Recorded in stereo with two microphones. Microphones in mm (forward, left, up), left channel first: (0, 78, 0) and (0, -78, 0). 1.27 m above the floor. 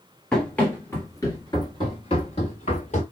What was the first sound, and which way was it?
Running footsteps, 5° left (ahead or behind).